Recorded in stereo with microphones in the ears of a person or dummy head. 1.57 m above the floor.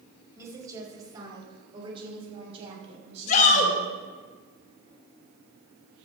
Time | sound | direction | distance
0.3 | a woman speaking | 15° right (ahead or behind) | 4.5 m
3.3 | a shout | 45° left (ahead or behind) | 3.5 m